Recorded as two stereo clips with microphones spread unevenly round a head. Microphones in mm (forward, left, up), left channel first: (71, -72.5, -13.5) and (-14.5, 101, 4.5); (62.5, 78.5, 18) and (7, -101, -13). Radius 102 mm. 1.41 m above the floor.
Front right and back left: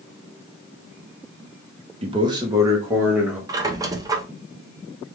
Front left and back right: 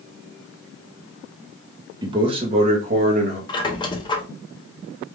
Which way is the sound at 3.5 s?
75° left.